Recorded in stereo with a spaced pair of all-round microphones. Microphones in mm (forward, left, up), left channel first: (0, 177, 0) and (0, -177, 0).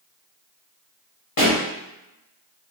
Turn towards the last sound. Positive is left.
turn(degrees=65)  # may be behind; listen again after turning